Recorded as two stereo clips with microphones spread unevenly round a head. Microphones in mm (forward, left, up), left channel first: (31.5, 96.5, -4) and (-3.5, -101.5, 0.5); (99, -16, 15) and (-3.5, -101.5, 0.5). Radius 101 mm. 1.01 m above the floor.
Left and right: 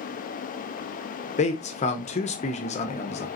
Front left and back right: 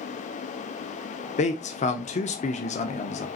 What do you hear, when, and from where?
1.4 s a man speaking: 35° left, 0.7 m